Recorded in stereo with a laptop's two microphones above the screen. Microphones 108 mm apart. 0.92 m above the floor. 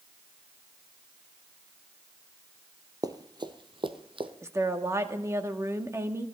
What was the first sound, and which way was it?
Running footsteps, 35° right (ahead or behind).